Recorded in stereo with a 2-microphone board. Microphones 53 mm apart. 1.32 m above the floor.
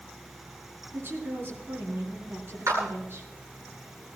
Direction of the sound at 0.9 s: 50° right (ahead or behind).